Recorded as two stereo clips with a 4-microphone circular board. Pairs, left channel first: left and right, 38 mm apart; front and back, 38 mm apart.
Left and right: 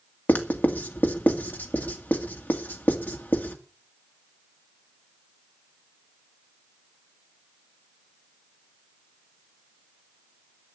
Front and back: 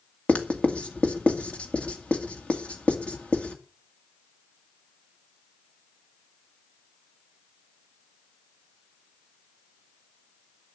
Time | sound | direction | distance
0.3 | writing | 55° left | 1.9 m